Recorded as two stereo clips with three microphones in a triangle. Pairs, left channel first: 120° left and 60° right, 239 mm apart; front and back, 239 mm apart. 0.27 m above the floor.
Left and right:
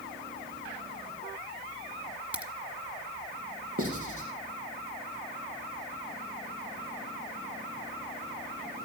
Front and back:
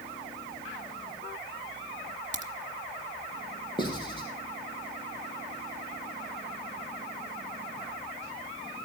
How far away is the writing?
About 3.5 m.